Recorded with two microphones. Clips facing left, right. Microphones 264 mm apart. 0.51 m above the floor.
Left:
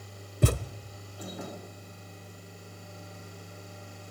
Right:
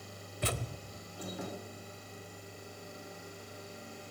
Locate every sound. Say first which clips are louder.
0.4 s a thud: left 9 dB; 50° left (ahead or behind), 1.1 m